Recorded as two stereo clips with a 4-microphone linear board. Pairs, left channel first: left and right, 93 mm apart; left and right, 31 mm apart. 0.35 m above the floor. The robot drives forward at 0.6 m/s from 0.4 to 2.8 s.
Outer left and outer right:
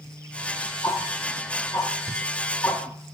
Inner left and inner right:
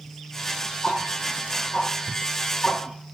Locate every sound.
0.8 s ticking: 35° left (ahead or behind), 8 m; by 3.1 s 40° left (ahead or behind), 7 m